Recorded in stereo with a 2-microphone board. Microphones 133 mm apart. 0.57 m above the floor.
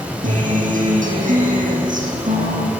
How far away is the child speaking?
No child speaking in this recording.